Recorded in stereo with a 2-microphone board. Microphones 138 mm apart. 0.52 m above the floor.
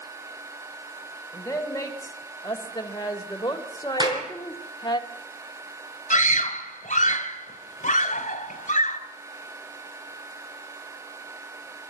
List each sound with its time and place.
1.3 s a woman speaking: 25° left (ahead or behind), 3 m; by 5.0 s 35° left (ahead or behind), 1.6 m
4.0 s a clap: 30° right (ahead or behind), 5 m
6.1 s a scream: 65° left (ahead or behind), 1.9 m